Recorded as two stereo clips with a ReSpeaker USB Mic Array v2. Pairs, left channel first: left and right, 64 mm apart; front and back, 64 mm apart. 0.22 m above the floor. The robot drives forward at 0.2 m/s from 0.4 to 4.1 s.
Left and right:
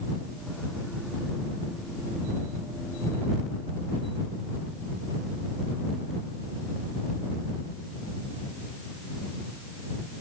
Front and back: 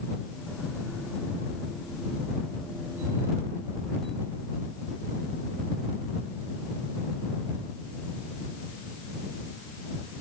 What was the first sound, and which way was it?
Only background noise.